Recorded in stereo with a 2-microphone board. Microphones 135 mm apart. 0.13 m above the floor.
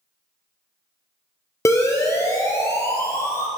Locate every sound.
1.6 s a siren: 20° left (ahead or behind), 3 m; by 3.5 s 25° left (ahead or behind), 4 m